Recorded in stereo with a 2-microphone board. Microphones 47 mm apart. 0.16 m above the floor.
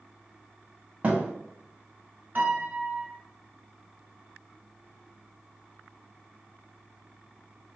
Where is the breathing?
I don't hear breathing.